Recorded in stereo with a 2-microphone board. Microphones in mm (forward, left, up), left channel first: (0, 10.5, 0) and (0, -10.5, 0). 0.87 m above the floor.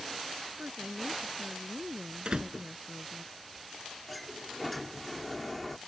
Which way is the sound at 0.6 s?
60° right (ahead or behind).